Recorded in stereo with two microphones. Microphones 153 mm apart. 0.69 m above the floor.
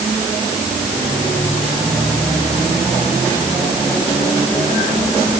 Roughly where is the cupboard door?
No cupboard door in this recording.